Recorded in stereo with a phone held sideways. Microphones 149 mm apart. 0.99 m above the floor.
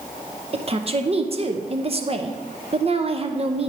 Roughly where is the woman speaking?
Right.